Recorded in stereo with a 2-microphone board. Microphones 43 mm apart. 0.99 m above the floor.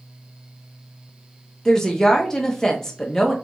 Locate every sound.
1.6 s a woman speaking: 10° left (ahead or behind), 1.0 m